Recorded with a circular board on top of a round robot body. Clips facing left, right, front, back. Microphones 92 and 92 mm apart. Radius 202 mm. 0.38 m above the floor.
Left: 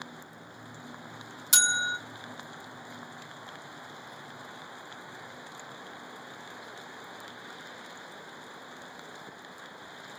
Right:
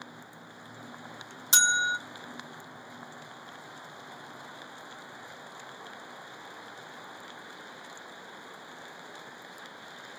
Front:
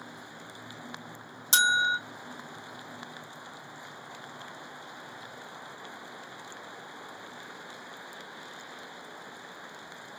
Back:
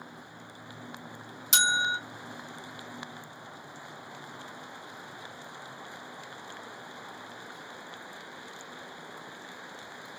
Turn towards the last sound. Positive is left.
turn(degrees=-40)